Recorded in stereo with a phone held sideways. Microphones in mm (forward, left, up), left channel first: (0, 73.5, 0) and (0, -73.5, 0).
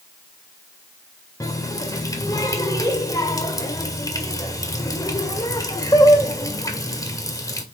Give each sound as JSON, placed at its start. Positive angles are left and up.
{"t": 1.4, "sound": "a running tap", "side_deg": 20, "distance_m": 1.6}